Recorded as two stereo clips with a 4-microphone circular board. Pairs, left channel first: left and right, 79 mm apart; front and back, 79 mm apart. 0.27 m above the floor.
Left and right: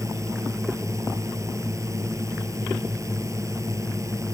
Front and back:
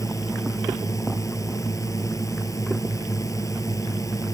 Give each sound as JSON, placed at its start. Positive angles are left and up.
{"t": 0.0, "sound": "a drone", "azimuth_deg": -45}